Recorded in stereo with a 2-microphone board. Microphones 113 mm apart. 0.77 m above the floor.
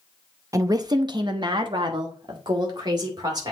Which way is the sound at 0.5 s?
25° right (ahead or behind).